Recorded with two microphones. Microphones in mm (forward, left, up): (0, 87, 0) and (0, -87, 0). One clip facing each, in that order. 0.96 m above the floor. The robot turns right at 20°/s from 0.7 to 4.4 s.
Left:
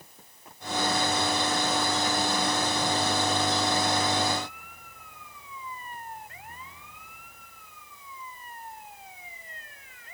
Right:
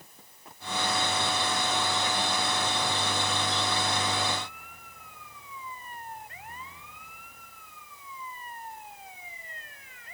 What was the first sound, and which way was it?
Only background noise.